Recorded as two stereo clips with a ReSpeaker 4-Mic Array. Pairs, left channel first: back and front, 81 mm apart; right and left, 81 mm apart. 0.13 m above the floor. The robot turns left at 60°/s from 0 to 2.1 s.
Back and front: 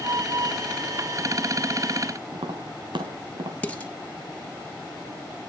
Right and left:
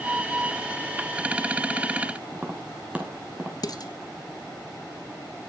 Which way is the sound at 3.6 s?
110° right.